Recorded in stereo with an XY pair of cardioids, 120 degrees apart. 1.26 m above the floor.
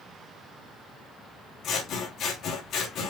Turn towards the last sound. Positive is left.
turn(degrees=65)